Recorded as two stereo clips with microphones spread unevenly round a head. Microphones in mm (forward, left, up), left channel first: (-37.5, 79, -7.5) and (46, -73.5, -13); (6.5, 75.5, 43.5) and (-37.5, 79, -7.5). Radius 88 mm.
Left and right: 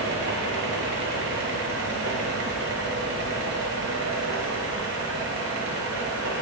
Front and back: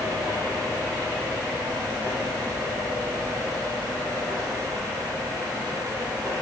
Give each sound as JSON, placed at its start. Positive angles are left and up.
{"t": 0.0, "sound": "a fan", "azimuth_deg": -65, "distance_m": 1.1}